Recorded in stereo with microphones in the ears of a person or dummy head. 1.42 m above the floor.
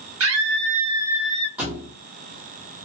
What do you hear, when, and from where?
0.2 s a scream: 70° right (ahead or behind), 1.0 m; by 1.5 s 10° left (ahead or behind), 1.0 m
1.6 s a thud: 10° right (ahead or behind), 0.9 m